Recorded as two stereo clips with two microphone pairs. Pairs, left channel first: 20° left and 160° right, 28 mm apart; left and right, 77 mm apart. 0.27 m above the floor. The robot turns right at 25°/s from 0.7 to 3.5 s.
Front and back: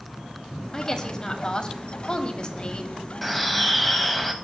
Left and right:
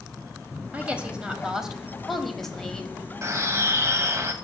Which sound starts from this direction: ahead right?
A woman speaking, at 0.7 s.